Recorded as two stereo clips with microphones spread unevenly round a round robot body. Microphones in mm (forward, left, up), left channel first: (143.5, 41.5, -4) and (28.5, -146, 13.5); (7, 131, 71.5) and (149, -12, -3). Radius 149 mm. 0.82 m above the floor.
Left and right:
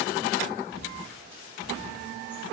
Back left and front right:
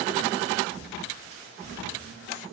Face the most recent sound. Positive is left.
turn(degrees=110)